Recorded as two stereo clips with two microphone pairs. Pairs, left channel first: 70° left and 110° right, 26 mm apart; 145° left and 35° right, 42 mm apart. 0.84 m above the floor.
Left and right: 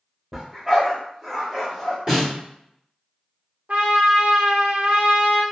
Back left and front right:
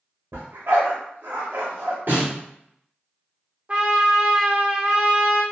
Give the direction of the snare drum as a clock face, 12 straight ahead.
2 o'clock.